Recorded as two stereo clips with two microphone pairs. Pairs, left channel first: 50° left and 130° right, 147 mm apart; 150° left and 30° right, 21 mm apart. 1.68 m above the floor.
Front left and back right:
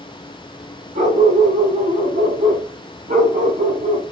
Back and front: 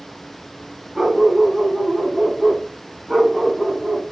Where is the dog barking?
110° right, 5.5 m; by 4.0 s 115° right, 4 m.